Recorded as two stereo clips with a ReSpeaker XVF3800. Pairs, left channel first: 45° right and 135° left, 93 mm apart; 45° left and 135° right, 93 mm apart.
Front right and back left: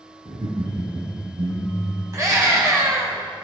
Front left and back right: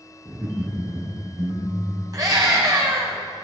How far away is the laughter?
About 3.5 m.